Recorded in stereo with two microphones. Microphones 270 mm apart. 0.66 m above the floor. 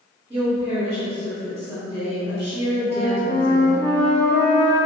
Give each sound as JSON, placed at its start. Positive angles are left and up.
{"t": 0.3, "sound": "a woman speaking", "side_deg": -20, "distance_m": 1.3}
{"t": 2.9, "sound": "a flute", "side_deg": 40, "distance_m": 0.8}